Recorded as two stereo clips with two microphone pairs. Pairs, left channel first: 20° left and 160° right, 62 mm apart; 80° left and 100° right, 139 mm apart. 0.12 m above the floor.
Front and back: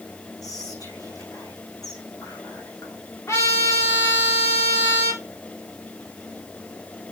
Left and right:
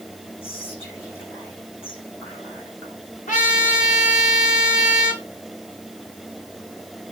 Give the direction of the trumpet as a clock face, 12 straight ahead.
10 o'clock.